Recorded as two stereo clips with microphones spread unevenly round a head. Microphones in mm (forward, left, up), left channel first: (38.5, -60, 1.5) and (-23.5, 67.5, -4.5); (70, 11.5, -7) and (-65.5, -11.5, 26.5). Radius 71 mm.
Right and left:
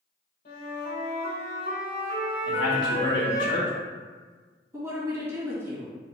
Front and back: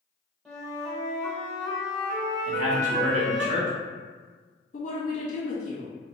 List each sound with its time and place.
0.5 s a flute: 85° right, 1.4 m
2.5 s a man speaking: 125° right, 1.2 m
4.7 s a woman speaking: 45° left, 1.8 m